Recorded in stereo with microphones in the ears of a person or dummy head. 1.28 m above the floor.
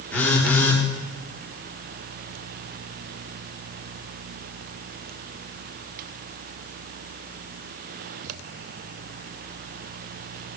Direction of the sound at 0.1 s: 5° left (ahead or behind).